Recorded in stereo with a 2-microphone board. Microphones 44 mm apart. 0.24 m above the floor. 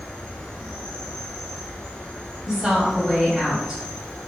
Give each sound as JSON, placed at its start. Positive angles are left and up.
{"t": 0.0, "sound": "an insect", "side_deg": 20, "distance_m": 0.9}
{"t": 2.5, "sound": "a woman speaking", "side_deg": -15, "distance_m": 1.1}